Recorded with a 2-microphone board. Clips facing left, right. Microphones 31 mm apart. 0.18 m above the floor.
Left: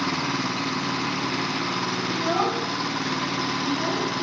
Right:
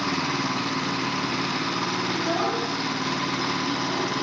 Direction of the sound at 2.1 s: 5° left (ahead or behind).